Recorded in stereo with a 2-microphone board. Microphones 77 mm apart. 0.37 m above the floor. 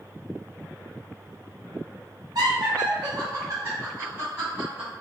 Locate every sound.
2.4 s laughter: 60° right (ahead or behind), 1.8 m; by 4.9 s 20° right (ahead or behind), 2.5 m